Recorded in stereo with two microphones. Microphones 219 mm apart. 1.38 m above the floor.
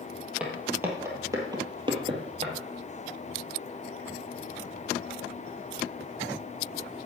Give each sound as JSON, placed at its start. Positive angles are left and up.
{"t": 0.4, "sound": "footsteps", "side_deg": -5, "distance_m": 2.5}